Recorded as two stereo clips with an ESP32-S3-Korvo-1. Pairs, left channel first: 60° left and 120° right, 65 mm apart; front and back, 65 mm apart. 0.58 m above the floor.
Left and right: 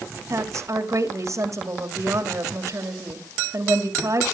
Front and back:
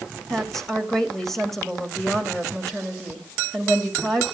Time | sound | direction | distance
0.3 | a woman speaking | 85° right | 2.5 m